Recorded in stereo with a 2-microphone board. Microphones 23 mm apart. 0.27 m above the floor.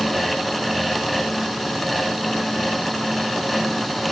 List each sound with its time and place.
Only background noise.